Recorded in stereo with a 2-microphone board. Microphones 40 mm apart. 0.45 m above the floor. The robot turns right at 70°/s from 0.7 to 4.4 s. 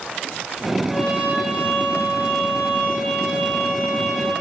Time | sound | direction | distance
0.9 | a trumpet | 10° right | 1.6 m